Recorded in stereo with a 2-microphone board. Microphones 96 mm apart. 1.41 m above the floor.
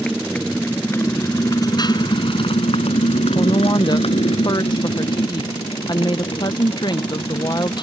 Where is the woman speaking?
45° left (ahead or behind).